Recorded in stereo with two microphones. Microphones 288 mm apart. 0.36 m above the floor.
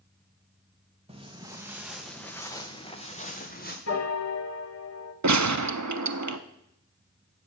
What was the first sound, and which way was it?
Footsteps, 20° right (ahead or behind).